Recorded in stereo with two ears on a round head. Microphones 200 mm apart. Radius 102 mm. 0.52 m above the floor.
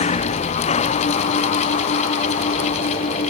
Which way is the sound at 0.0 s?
30° left (ahead or behind).